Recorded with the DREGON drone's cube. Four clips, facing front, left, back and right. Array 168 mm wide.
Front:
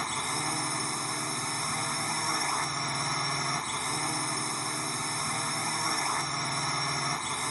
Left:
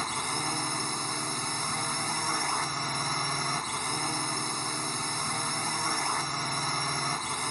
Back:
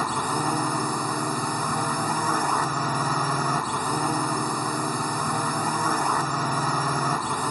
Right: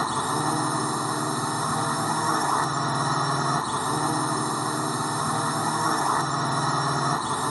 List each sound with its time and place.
0.0 s a drone: 135° right